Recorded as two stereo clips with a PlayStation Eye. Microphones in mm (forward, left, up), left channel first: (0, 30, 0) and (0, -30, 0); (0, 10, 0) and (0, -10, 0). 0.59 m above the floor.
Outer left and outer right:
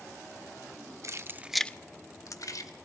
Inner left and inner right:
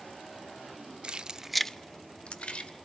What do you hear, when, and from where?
1.0 s keys jangling: 55° right (ahead or behind), 0.9 m; by 2.7 s 75° left (ahead or behind), 1.7 m